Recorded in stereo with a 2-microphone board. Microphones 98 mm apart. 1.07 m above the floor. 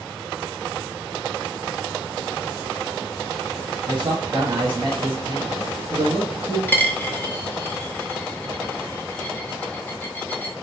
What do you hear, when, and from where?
3.9 s a man speaking: 50° right (ahead or behind), 1.3 m
6.7 s a dropped coin: 20° left (ahead or behind), 0.7 m